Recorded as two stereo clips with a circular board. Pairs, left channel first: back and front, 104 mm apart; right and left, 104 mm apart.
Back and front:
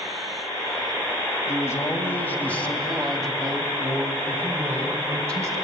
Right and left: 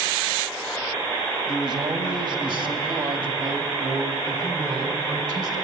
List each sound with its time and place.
1.5 s a man speaking: 125° left, 2.5 m; by 5.6 s 50° left, 3 m